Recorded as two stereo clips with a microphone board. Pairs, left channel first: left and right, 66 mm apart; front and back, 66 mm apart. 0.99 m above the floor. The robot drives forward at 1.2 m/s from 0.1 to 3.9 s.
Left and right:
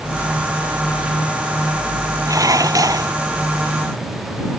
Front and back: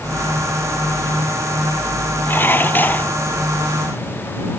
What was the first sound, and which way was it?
Dishes clattering, 60° right.